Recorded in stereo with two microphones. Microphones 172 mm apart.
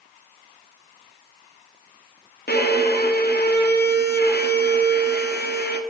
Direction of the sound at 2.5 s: 65° left (ahead or behind).